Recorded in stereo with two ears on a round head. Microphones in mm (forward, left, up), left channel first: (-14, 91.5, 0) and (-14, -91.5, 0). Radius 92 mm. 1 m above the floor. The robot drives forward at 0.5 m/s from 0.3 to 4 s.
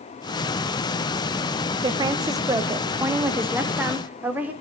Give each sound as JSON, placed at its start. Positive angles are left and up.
{"t": 1.8, "sound": "a woman speaking", "side_deg": -25, "distance_m": 0.6}